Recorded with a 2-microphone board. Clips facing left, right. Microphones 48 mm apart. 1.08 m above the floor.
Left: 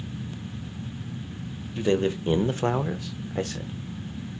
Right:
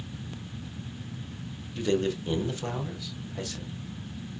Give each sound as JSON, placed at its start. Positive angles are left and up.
{"t": 1.8, "sound": "a man speaking", "side_deg": 25, "distance_m": 0.8}